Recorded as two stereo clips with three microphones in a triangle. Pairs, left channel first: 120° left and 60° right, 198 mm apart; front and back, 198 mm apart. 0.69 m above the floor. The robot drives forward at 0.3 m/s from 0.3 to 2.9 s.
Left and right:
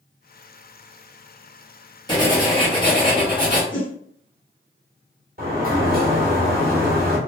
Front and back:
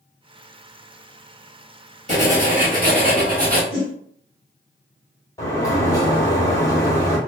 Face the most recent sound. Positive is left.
turn(degrees=-65)